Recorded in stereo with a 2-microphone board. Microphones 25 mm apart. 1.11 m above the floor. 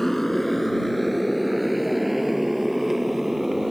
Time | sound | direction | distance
0.0 | a motorcycle | 10° left (ahead or behind) | ?